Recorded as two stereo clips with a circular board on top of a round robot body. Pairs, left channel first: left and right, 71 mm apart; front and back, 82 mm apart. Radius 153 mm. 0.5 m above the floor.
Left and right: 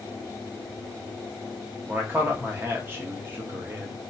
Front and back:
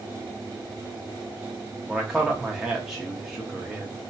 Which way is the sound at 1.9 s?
100° right.